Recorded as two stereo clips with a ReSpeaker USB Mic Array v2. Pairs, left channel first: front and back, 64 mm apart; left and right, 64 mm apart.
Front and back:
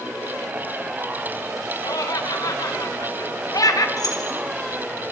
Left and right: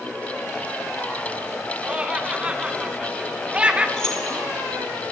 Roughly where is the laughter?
Ahead.